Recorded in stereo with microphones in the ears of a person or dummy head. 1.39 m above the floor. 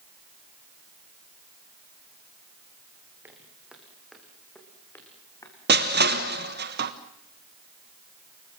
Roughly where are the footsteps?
Centre.